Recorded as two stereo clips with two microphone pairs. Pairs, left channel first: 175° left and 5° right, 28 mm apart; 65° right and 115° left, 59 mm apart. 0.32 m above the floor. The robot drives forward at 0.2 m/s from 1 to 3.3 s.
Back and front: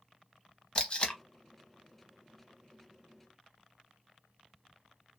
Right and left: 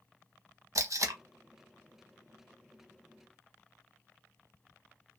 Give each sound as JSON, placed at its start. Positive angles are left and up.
{"t": 0.8, "sound": "tape being pulled", "azimuth_deg": 120, "distance_m": 0.7}